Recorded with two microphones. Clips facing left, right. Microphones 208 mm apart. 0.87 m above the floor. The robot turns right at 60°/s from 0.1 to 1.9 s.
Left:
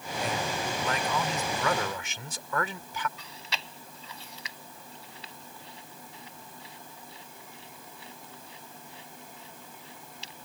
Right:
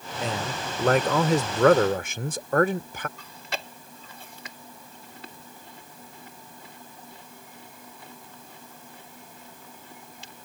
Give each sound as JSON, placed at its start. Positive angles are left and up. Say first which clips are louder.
{"t": 0.2, "sound": "a man speaking", "louder": "right 1 dB", "azimuth_deg": -155}
{"t": 3.2, "sound": "chewing", "louder": "right 5 dB", "side_deg": -55}